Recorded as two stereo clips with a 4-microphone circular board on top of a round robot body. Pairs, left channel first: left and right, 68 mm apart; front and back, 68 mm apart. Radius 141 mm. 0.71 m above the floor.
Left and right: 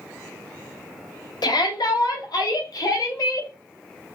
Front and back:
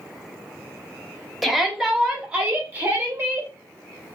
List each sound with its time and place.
1.4 s a shout: 95° left, 2.0 m; by 3.5 s 125° left, 2.5 m